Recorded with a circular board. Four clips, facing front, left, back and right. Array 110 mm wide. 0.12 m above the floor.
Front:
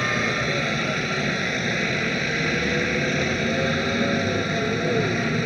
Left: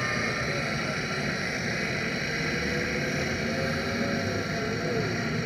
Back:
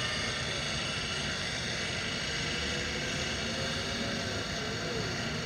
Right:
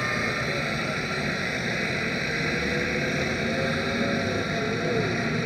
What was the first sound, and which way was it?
A helicopter, 10° right.